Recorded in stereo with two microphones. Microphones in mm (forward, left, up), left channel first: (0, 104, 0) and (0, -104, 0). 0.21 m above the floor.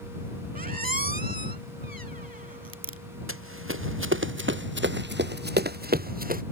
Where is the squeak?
45° right (ahead or behind).